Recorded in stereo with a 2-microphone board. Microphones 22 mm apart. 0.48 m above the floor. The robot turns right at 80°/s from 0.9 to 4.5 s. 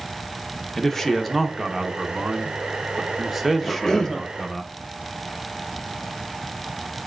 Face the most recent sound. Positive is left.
turn(degrees=-150)